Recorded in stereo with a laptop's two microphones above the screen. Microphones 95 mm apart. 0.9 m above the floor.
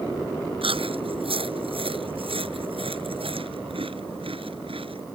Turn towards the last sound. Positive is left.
turn(degrees=-75)  # may be behind; listen again after turning